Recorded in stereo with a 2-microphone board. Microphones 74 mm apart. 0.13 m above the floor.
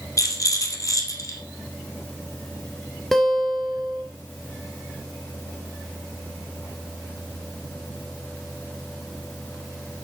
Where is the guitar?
5° left (ahead or behind), 1.9 m.